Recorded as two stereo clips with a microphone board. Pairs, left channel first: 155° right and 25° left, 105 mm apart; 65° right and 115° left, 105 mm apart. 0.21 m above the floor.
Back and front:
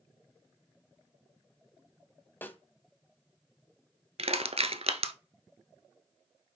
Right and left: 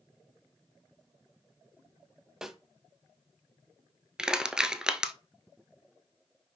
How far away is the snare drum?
About 1.0 m.